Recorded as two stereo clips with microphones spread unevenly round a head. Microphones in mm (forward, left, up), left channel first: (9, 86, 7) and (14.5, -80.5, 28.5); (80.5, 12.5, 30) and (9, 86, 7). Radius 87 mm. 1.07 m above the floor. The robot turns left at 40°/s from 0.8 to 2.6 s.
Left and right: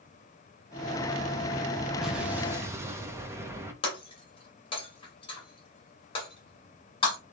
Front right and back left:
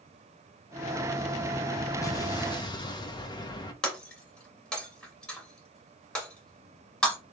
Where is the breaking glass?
30° left, 1.9 m.